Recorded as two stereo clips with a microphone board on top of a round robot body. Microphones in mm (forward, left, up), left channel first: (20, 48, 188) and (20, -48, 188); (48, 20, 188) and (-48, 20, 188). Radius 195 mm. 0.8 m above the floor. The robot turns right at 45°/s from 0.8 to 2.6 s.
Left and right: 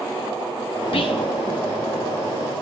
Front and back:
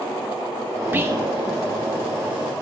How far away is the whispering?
About 1.2 m.